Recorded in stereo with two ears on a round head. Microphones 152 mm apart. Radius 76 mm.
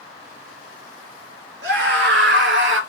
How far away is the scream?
About 4.5 m.